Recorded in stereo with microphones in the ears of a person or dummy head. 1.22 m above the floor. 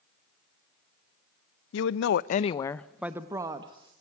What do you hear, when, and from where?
1.7 s a woman speaking: 80° left, 0.9 m; by 3.9 s 25° right (ahead or behind), 1.5 m